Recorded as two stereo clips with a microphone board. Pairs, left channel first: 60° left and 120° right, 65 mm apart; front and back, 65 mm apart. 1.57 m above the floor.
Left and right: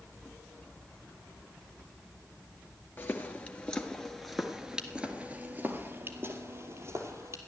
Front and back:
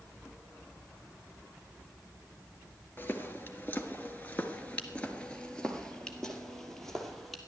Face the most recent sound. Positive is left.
turn(degrees=-85)